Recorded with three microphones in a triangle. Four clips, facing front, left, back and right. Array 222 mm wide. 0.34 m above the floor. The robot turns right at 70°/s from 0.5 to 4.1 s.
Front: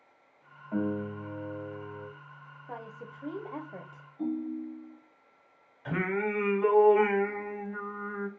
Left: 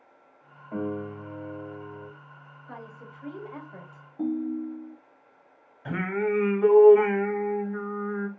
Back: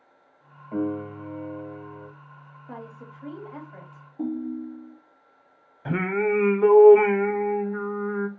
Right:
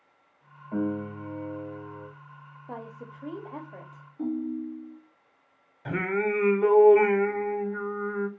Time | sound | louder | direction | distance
0.7 | a piano | right 2 dB, back 4 dB | 170° left | 1.4 m
2.7 | a woman speaking | right 3 dB, back 2 dB | 95° right | 1.0 m
4.2 | a ringtone | left 2 dB, back 3 dB | 145° left | 0.9 m
5.8 | singing | even, back 6 dB | 175° right | 0.7 m